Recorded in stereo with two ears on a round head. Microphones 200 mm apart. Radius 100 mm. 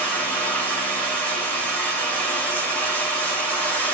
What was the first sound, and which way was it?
Running water, 5° left (ahead or behind).